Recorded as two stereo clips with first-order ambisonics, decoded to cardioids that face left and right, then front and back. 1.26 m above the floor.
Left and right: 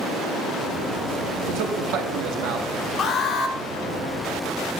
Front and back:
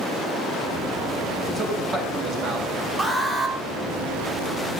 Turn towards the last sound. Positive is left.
turn(degrees=110)